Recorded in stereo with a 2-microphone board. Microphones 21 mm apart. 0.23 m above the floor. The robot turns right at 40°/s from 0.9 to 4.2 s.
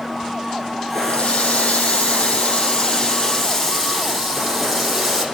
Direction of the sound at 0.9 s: 60° left.